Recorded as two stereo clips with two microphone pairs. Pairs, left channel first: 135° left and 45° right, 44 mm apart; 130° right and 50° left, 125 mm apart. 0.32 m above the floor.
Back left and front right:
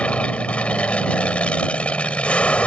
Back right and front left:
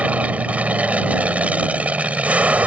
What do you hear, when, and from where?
0.0 s an aircraft: 120° left